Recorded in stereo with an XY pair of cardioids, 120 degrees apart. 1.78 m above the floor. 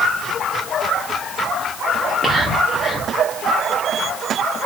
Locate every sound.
2.0 s whispering: 5° left, 0.6 m